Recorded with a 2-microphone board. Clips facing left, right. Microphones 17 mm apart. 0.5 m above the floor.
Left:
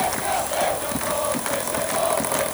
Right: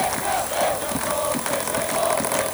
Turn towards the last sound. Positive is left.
No sound to turn to.